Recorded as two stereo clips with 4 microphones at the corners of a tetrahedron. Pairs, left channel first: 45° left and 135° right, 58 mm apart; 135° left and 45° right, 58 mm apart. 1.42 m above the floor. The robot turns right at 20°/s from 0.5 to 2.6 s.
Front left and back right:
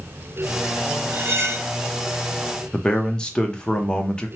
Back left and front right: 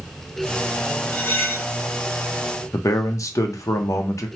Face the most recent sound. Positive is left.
turn(degrees=120)